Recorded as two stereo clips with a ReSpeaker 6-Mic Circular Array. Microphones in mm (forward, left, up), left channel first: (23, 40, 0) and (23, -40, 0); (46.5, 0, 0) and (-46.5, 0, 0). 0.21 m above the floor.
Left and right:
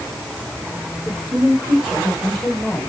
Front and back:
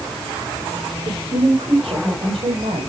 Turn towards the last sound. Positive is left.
turn(degrees=165)